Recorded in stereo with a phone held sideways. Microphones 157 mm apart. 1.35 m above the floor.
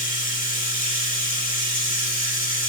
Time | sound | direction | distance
0.0 | running water | 65° left (ahead or behind) | 1.6 m